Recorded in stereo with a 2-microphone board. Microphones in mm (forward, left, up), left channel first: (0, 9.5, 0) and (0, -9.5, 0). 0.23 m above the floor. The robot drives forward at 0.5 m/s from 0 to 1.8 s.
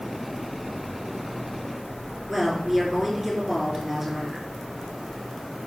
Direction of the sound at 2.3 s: 15° right (ahead or behind).